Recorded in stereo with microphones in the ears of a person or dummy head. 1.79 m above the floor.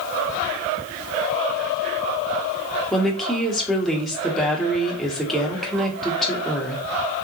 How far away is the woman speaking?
About 1.3 m.